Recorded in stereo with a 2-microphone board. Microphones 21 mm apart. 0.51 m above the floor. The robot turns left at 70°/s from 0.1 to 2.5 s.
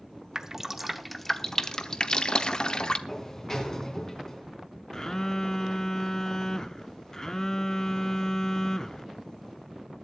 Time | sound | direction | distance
0.3 | dripping | 30° right (ahead or behind) | 0.8 m
3.1 | a sliding door | 25° left (ahead or behind) | 3 m
4.9 | a phone buzzing | 25° left (ahead or behind) | 0.9 m